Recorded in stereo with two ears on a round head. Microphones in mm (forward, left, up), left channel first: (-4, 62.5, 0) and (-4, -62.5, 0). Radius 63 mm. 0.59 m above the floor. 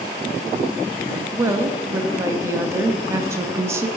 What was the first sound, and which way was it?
A woman speaking, 20° right (ahead or behind).